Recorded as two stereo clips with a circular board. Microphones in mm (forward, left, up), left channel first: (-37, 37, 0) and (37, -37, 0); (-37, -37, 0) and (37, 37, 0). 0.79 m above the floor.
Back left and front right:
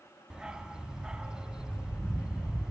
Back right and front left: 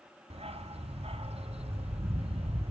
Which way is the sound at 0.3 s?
35° left.